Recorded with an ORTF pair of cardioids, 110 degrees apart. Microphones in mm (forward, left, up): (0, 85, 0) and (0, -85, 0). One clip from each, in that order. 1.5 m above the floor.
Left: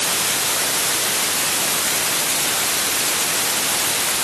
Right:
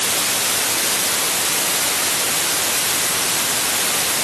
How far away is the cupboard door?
No cupboard door in this recording.